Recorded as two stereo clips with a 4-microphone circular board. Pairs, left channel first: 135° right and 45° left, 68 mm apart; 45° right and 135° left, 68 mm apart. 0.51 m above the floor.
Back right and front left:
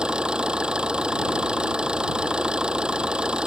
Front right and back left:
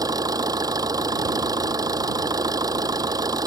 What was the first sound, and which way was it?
An engine running, 120° left.